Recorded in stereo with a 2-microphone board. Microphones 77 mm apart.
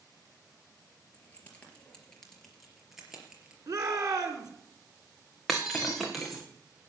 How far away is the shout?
About 3.5 m.